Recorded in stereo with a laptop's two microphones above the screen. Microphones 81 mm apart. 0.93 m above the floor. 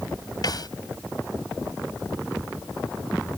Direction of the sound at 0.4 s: 55° left (ahead or behind).